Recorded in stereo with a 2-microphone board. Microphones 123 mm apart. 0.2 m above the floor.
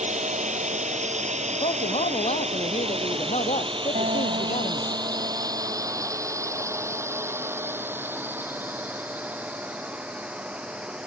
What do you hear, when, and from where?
0.0 s a drone: 75° right (ahead or behind); by 11.1 s 10° right (ahead or behind)
1.5 s a man speaking: 65° left (ahead or behind)
4.0 s a guitar: 80° right